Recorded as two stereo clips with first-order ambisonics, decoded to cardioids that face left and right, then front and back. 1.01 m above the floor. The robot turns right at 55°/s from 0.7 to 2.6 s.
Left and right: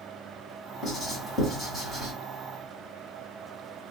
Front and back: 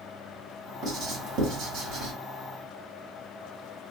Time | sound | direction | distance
0.8 | writing | 135° left | 1.7 m